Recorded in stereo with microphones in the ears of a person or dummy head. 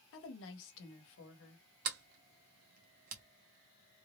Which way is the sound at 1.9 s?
40° right (ahead or behind).